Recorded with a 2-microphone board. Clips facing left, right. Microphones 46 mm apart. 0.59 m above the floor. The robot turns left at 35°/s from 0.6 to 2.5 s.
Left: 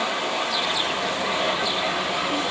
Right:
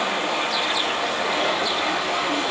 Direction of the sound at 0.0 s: 60° right.